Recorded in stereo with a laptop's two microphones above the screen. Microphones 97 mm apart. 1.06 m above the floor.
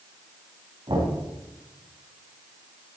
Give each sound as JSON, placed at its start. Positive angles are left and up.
{"t": 0.9, "sound": "knocking", "side_deg": -65, "distance_m": 5.5}